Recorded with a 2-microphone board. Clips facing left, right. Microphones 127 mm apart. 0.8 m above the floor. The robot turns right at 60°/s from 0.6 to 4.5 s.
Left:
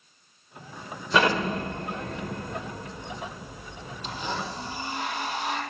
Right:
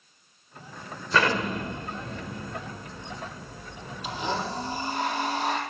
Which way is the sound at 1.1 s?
15° left (ahead or behind).